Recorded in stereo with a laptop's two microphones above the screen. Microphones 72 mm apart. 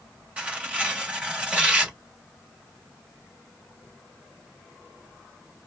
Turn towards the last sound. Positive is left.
turn(degrees=-15)  # may be behind; listen again after turning